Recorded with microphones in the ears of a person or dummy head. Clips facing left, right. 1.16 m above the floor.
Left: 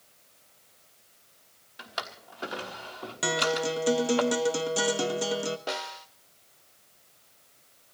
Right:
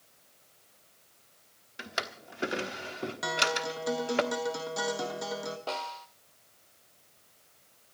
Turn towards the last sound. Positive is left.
turn(degrees=20)  # may be behind; listen again after turning